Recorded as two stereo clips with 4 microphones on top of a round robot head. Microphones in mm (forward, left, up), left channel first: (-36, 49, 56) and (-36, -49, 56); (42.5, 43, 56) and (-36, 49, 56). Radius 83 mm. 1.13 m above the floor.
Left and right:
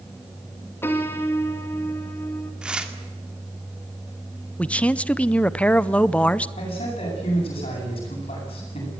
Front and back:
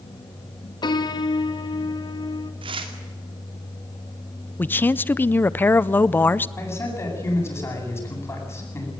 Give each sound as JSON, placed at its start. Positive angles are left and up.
{"t": 0.8, "sound": "a piano", "azimuth_deg": 20, "distance_m": 2.0}
{"t": 2.6, "sound": "tearing paper", "azimuth_deg": -170, "distance_m": 2.0}
{"t": 4.6, "sound": "a man speaking", "azimuth_deg": 25, "distance_m": 0.7}
{"t": 6.6, "sound": "a man speaking", "azimuth_deg": 50, "distance_m": 9.0}